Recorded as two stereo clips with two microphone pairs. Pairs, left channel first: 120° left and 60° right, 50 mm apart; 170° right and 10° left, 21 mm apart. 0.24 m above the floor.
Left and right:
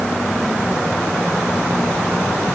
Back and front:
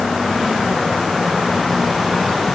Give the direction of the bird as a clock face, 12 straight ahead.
No bird in this recording.